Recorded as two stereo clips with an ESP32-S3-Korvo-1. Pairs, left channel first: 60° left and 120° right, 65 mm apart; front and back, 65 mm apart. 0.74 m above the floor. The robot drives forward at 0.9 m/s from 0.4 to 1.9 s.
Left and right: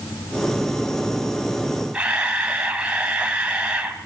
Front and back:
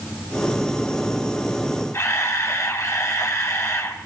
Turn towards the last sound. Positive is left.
turn(degrees=-45)